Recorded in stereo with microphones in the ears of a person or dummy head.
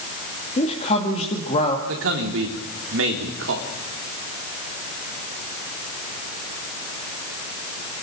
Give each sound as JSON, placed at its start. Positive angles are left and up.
{"t": 0.6, "sound": "a man speaking", "side_deg": 35, "distance_m": 2.5}
{"t": 1.9, "sound": "a man speaking", "side_deg": -70, "distance_m": 3.5}